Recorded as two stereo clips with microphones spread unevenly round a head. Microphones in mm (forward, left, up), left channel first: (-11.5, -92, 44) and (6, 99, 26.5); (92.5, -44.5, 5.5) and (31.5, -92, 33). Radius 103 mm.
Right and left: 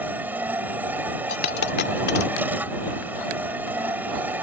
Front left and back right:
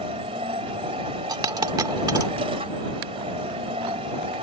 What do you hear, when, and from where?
0.0 s a machine running: 170° left
1.3 s a dropped coin: 130° right